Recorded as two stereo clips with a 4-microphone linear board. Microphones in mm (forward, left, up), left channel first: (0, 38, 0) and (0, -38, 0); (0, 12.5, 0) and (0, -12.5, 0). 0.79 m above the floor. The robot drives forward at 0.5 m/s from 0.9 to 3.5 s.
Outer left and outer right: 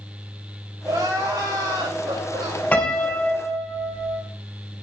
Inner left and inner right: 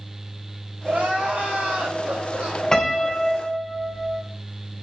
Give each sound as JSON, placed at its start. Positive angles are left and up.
{"t": 0.8, "sound": "crying", "side_deg": -65, "distance_m": 4.0}
{"t": 2.7, "sound": "a piano", "side_deg": 20, "distance_m": 1.9}